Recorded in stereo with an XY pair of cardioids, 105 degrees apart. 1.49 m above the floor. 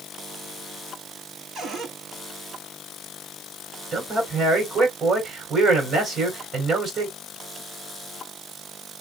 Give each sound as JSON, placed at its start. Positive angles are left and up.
{"t": 1.6, "sound": "a cupboard door", "azimuth_deg": -60, "distance_m": 5.5}
{"t": 3.9, "sound": "a man speaking", "azimuth_deg": -50, "distance_m": 5.0}